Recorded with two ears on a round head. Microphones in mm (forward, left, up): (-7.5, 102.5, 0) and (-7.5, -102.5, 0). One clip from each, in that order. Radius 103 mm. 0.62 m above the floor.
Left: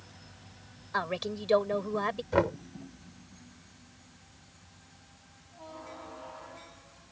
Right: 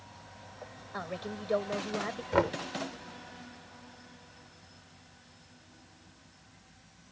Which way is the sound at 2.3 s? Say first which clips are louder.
Even; 15° right (ahead or behind).